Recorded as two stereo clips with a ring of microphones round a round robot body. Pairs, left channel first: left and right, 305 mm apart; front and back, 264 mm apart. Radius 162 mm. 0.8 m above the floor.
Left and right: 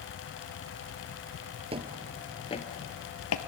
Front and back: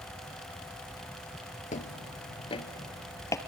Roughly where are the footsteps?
Ahead right.